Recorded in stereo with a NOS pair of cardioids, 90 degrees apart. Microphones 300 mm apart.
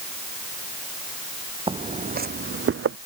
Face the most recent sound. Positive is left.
turn(degrees=-50)